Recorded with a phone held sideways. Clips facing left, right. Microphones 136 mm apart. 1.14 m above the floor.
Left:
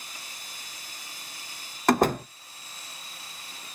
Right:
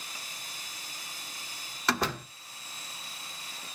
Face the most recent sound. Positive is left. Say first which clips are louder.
# left 9 dB
turn(degrees=50)  # may be behind; listen again after turning